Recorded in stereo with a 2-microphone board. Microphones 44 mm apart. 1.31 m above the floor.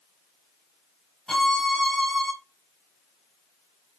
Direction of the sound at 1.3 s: 5° left (ahead or behind).